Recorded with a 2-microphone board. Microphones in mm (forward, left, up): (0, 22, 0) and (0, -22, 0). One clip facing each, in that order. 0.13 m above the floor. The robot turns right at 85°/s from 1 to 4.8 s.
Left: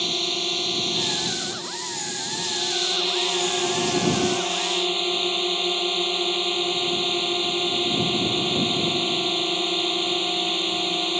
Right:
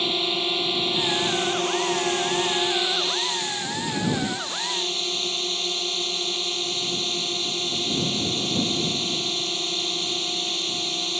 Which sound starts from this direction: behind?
A drone, at 0.0 s.